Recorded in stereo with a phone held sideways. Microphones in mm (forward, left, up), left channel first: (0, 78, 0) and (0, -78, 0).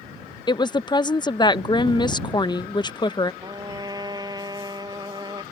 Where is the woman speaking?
25° left (ahead or behind).